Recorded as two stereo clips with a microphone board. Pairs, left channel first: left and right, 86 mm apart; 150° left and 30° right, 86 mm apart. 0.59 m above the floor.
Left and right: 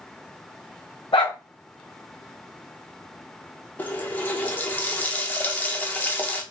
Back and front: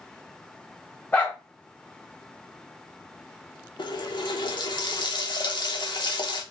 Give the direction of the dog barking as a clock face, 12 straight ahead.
10 o'clock.